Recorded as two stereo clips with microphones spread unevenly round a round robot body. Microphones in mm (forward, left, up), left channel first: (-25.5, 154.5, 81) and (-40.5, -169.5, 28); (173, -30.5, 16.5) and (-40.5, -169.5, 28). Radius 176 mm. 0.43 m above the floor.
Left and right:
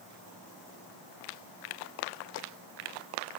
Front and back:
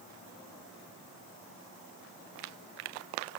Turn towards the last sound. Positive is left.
No sound to turn to.